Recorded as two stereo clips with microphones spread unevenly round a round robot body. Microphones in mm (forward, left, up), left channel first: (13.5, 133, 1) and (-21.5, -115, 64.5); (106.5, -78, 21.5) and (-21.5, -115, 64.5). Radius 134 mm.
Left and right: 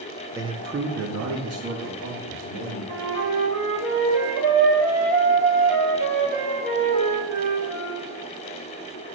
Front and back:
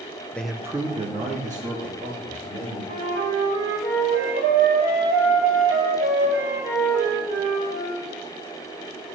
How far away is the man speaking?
About 0.8 m.